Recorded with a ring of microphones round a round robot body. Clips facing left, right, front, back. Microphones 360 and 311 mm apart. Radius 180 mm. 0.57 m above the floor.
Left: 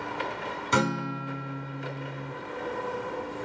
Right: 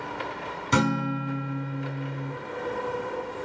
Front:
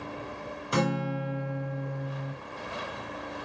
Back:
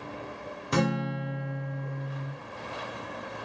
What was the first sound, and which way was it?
A guitar, 125° right.